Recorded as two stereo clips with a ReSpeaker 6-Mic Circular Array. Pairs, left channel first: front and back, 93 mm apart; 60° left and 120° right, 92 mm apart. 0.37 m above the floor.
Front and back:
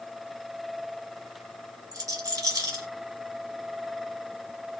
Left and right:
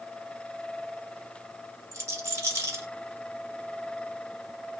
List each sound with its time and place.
1.9 s a rattle: 160° right, 1.6 m